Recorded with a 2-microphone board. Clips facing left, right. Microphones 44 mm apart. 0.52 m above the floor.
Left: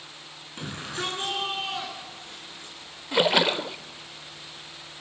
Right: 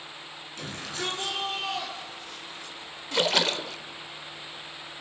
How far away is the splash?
About 0.5 m.